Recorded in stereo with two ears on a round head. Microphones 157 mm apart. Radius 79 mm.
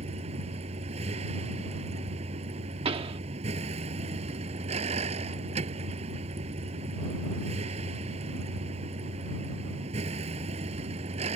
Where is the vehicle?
40° right (ahead or behind).